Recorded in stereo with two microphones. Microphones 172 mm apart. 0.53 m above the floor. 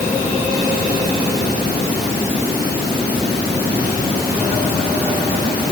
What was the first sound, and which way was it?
Only background noise.